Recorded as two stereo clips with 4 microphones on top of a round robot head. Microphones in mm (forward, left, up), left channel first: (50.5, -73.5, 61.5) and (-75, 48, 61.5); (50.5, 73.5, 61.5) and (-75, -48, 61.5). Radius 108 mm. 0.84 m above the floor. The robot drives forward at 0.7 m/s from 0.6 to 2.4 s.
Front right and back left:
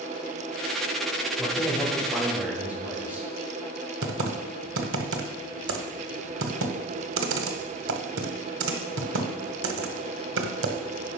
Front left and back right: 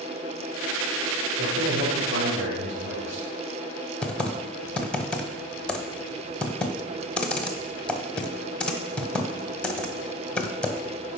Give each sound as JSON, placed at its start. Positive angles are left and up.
{"t": 1.4, "sound": "a man speaking", "azimuth_deg": -135, "distance_m": 3.0}
{"t": 4.0, "sound": "typing on a keyboard", "azimuth_deg": 130, "distance_m": 1.0}